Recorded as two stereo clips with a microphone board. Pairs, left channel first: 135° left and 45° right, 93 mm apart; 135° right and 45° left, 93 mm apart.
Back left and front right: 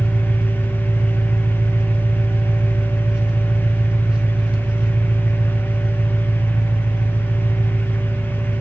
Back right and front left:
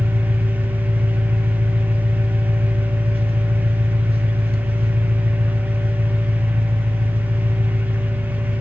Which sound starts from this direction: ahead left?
An engine running, at 0.0 s.